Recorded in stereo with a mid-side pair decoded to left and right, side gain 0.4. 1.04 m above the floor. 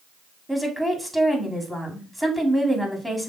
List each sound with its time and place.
0.5 s a woman speaking: straight ahead, 2.5 m